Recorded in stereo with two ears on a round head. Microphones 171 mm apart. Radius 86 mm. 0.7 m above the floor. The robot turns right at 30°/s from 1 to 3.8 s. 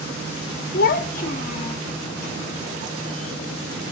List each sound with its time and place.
0.7 s a child speaking: 50° left (ahead or behind), 1.0 m; by 1.8 s 30° left (ahead or behind), 1.0 m